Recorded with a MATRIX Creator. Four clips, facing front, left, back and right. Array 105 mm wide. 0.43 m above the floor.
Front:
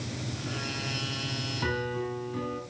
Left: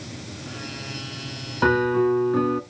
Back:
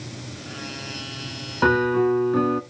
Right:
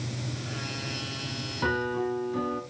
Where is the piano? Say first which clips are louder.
Left 9 dB, back 14 dB; 140° left, 1.0 m.